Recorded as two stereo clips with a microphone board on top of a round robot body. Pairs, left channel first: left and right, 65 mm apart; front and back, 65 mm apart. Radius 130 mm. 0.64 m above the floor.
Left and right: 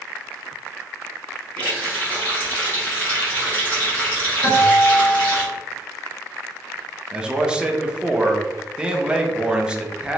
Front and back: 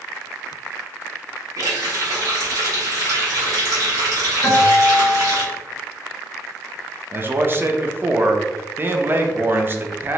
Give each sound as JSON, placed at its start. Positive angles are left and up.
{"t": 1.6, "sound": "a running tap", "azimuth_deg": 155, "distance_m": 1.2}
{"t": 4.4, "sound": "a guitar", "azimuth_deg": 55, "distance_m": 1.2}
{"t": 7.1, "sound": "a man speaking", "azimuth_deg": -155, "distance_m": 0.6}